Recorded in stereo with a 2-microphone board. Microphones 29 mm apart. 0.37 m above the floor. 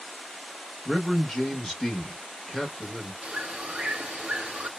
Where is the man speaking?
5° left (ahead or behind), 0.8 m.